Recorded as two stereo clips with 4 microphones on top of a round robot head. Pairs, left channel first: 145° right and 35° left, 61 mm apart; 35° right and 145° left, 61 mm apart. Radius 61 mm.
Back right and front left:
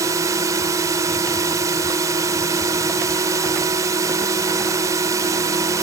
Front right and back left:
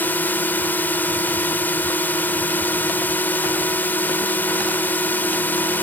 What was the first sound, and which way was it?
A drone, 20° left.